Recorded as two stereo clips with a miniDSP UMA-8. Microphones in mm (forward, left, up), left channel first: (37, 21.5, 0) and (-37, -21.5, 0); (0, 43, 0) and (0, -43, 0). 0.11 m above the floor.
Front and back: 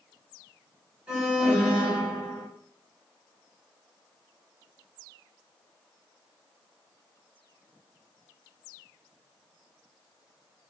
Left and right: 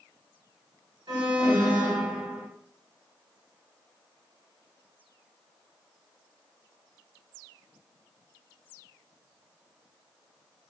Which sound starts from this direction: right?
An alarm, at 1.1 s.